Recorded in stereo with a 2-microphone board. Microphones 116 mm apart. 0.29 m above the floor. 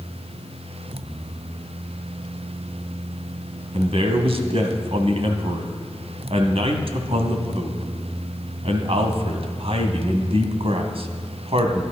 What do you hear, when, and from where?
3.7 s a man speaking: 60° right (ahead or behind), 1.7 m